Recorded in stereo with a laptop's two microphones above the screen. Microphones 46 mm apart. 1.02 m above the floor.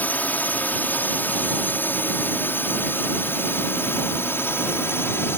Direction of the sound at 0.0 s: 40° left (ahead or behind).